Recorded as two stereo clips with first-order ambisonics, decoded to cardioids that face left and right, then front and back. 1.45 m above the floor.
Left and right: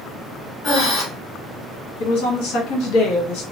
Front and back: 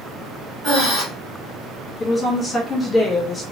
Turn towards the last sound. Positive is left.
turn(degrees=75)